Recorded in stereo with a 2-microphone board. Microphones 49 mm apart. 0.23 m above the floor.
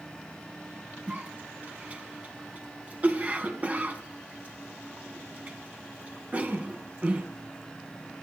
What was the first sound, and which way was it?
A cough, 30° right (ahead or behind).